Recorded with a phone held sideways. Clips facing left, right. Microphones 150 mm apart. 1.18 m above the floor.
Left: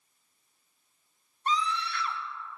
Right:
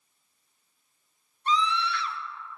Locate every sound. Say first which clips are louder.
1.5 s a scream: right 4 dB; 45° left (ahead or behind), 1.4 m